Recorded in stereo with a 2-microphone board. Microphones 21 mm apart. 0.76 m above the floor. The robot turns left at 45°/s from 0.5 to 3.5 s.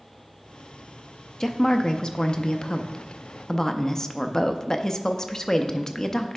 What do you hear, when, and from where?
1.4 s a woman speaking: 140° left, 0.5 m; by 6.4 s 45° left, 0.5 m